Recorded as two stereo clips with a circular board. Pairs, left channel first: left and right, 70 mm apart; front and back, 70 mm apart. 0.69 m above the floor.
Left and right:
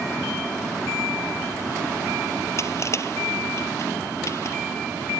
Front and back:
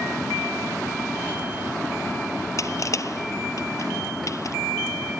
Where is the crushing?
45° left.